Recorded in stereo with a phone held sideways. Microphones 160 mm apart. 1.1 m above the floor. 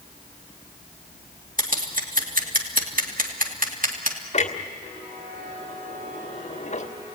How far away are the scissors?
About 2 m.